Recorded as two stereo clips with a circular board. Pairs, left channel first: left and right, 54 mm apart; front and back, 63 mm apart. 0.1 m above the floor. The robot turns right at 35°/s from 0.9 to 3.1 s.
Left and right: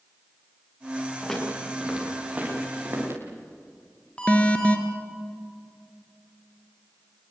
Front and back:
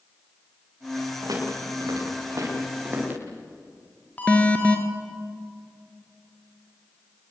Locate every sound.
1.2 s footsteps: 165° left, 9.5 m; by 3.2 s 120° right, 8.5 m
4.2 s an alarm: 50° left, 2.5 m